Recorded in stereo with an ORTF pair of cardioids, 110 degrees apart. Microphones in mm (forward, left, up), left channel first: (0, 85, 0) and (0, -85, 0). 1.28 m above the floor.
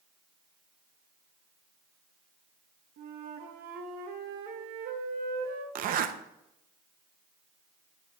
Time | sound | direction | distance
3.0 | a flute | 65° right | 1.1 m
5.8 | a zipper | 55° right | 0.6 m